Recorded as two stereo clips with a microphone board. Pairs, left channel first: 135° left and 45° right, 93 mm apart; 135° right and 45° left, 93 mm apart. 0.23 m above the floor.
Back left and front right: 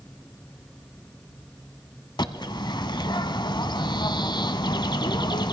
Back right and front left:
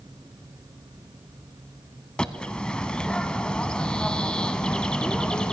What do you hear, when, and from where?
2.2 s a bird: 150° left, 0.8 m